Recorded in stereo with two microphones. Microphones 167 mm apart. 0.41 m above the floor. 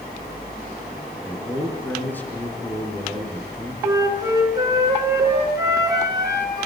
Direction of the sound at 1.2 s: 10° left (ahead or behind).